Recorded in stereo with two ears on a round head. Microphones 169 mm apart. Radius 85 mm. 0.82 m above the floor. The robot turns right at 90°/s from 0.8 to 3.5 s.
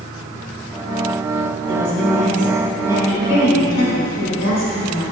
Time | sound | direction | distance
1.7 | a woman speaking | 90° right | 3 m